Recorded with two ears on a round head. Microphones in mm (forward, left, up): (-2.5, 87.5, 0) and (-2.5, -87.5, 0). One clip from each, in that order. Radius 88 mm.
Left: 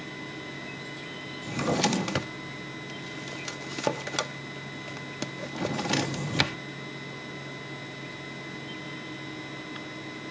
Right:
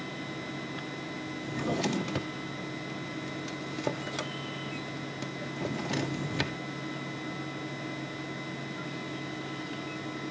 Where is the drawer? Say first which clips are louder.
Left 5 dB; 30° left (ahead or behind).